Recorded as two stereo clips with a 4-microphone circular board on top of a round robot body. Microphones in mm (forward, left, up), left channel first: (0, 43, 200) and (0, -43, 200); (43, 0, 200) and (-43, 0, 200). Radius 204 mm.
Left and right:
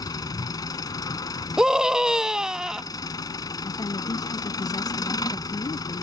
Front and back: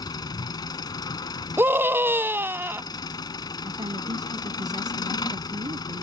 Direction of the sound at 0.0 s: 45° left.